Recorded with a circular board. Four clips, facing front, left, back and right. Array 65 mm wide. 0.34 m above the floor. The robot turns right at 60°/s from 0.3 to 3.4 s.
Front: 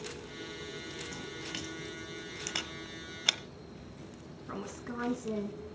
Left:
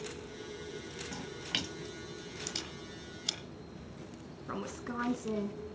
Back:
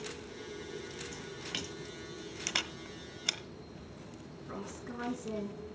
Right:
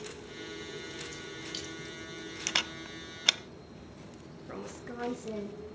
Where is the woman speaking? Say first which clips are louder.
Left 3 dB, front 3 dB; 70° left, 4 m.